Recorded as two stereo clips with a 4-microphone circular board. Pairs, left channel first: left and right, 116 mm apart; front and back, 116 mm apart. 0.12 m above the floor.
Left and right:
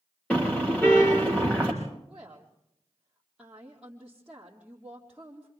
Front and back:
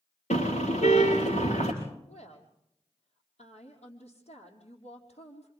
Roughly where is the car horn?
Ahead.